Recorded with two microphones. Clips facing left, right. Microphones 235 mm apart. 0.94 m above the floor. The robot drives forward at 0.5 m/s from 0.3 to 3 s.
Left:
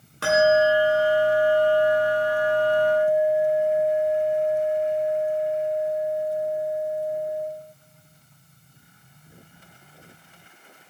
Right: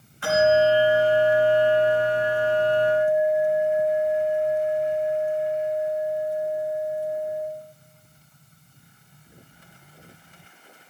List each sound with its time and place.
0.2 s a bell: 80° left, 2 m; by 7.5 s 50° left (ahead or behind), 2.5 m